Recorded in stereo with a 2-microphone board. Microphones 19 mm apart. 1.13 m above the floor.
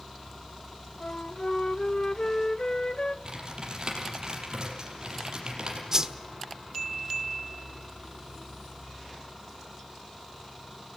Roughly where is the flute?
Left.